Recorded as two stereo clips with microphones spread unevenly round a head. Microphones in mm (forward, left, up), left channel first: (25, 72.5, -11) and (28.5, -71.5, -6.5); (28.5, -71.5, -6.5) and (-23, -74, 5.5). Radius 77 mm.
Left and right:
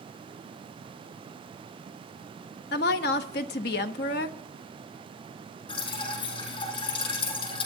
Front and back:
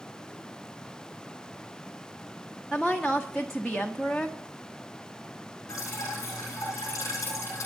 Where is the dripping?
40° left, 7.5 m.